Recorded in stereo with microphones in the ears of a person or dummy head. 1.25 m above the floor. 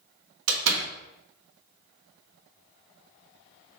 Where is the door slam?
85° right, 1.5 m.